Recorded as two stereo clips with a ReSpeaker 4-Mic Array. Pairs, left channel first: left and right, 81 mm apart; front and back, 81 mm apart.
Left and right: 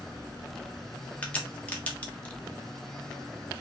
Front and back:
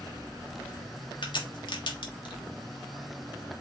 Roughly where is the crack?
Ahead.